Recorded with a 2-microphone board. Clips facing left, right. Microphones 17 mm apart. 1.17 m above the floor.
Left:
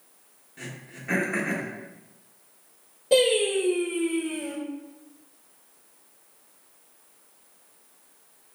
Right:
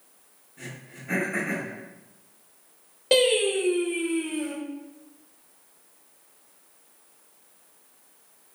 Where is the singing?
55° right (ahead or behind), 1.2 m.